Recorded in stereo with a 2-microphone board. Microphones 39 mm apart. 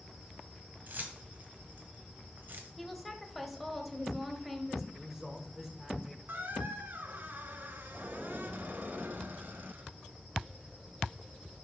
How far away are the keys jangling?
About 1.6 m.